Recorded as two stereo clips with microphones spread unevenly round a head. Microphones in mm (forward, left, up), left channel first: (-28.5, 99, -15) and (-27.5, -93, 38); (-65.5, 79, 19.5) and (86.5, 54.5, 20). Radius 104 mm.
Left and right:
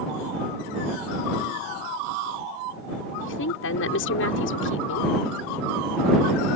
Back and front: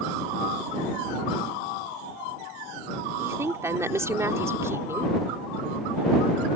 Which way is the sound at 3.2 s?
65° left.